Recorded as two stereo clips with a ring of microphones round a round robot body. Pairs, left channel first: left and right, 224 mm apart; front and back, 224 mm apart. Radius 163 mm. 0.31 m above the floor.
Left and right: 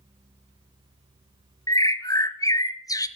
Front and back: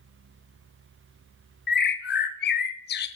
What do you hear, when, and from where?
1.7 s a bird: 20° left, 0.9 m